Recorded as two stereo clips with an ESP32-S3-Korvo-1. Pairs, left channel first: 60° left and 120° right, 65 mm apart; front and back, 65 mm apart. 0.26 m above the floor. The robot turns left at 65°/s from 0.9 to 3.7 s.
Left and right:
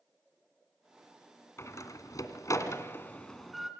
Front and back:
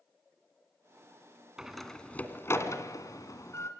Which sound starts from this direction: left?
A door slam, at 1.6 s.